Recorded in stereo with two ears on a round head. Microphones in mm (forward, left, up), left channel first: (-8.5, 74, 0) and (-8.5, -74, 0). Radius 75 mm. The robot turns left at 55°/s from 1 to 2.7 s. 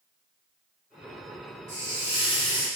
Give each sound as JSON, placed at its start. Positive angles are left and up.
{"t": 1.7, "sound": "a hiss", "azimuth_deg": -145, "distance_m": 1.4}